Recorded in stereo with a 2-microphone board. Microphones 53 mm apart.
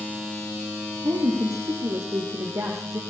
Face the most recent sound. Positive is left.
turn(degrees=-70)  # may be behind; listen again after turning